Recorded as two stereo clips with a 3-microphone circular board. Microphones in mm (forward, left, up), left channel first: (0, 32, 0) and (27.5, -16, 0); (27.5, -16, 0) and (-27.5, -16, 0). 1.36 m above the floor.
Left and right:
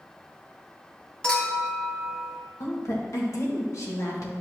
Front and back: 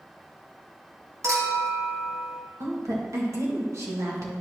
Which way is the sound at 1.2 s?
165° right.